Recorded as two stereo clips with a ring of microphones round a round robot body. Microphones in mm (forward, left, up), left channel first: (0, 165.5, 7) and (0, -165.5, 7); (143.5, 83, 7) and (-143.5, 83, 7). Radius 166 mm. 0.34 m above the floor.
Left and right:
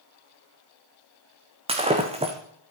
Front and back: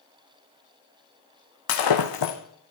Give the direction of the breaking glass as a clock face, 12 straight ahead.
1 o'clock.